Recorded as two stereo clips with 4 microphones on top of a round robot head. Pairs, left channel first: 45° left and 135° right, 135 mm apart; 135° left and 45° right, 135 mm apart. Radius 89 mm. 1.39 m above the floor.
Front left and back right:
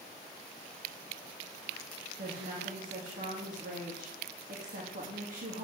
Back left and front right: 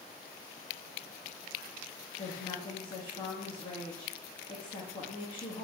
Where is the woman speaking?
165° right, 2.5 m.